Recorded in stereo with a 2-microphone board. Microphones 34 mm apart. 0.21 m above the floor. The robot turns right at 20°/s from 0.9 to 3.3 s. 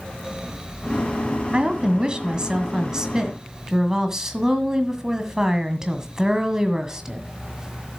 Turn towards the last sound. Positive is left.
turn(degrees=-30)